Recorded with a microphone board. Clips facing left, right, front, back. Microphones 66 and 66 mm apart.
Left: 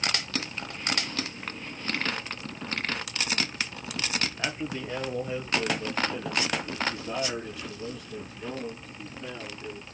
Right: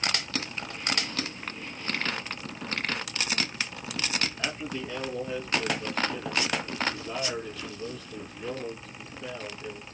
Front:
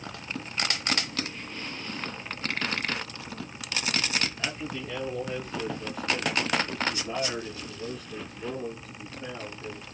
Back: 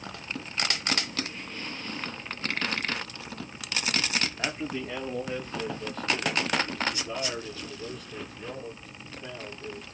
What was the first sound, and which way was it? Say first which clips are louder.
A man speaking: left 1 dB, back 2 dB; 150° left.